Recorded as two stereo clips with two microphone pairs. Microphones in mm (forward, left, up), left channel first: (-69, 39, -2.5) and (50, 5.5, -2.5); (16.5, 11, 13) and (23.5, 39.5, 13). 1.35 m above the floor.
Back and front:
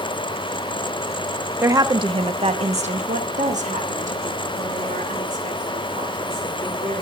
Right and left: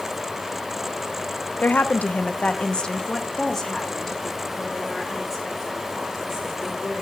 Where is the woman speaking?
85° right, 0.7 m; by 7.0 s 5° right, 3 m.